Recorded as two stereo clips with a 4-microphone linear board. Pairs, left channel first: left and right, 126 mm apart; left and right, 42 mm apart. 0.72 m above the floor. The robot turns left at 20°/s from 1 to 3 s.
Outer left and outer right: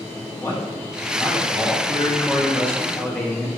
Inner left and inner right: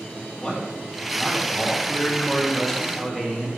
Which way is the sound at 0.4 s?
55° left.